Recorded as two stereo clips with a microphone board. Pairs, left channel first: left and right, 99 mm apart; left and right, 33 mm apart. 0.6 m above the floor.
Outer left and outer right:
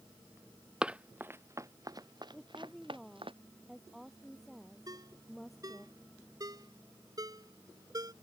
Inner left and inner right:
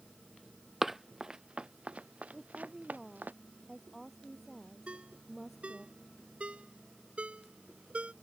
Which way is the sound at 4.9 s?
40° right (ahead or behind).